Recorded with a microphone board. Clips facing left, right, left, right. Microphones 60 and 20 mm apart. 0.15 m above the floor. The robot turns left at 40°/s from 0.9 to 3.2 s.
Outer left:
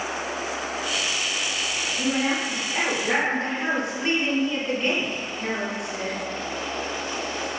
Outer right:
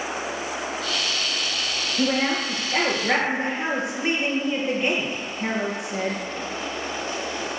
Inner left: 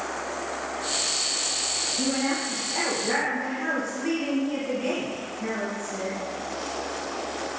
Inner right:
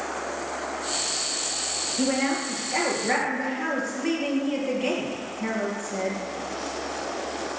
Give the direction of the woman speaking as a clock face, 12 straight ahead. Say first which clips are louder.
Outer right 2 dB, inner right 4 dB; 4 o'clock.